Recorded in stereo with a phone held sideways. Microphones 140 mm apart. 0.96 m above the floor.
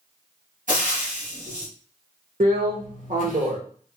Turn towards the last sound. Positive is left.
turn(degrees=-75)  # may be behind; listen again after turning